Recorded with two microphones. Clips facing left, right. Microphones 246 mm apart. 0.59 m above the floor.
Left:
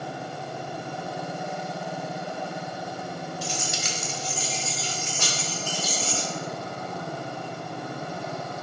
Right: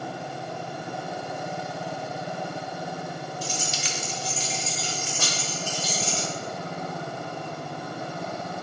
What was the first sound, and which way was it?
Keys jangling, 70° left (ahead or behind).